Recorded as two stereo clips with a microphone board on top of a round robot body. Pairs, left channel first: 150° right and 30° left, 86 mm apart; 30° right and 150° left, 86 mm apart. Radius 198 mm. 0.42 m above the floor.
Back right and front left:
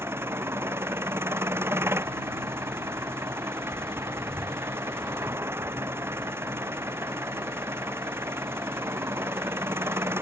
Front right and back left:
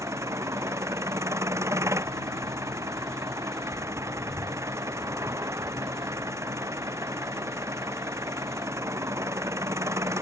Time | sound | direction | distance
0.0 | an engine running | 95° left | ?